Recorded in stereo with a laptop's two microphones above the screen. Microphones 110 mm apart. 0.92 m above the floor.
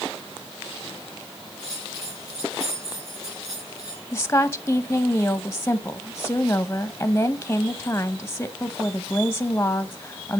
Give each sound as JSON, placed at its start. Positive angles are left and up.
{"t": 1.6, "sound": "a bell", "side_deg": 35, "distance_m": 4.5}
{"t": 4.1, "sound": "a woman speaking", "side_deg": 20, "distance_m": 0.6}